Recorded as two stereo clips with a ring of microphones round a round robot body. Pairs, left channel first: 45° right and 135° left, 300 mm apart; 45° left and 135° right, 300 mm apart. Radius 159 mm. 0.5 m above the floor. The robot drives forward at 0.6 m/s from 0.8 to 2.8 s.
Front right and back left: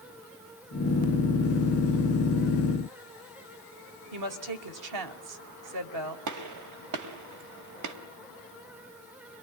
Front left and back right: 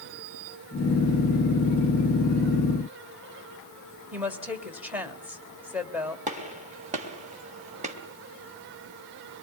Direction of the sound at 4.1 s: 140° left.